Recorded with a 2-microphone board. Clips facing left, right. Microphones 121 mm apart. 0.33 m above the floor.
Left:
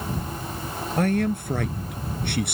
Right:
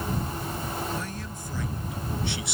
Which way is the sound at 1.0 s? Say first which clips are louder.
Left 13 dB; 75° left (ahead or behind).